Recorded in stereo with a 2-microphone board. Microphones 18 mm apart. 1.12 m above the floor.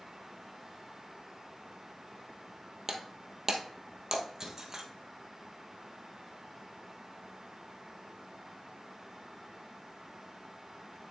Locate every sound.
2.9 s breaking glass: 25° right (ahead or behind), 1.3 m